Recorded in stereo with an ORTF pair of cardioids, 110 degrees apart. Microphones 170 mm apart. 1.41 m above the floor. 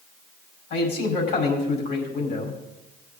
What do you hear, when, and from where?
0.7 s a man speaking: 70° left, 5 m